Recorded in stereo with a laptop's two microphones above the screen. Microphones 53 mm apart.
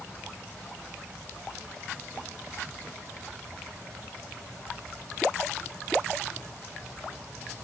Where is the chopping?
No chopping in this recording.